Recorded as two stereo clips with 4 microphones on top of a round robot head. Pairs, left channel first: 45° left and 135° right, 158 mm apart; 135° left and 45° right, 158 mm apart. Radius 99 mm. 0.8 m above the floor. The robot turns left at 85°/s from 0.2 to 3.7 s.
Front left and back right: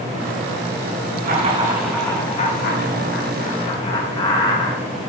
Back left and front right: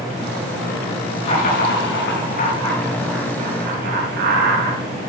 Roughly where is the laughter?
Behind.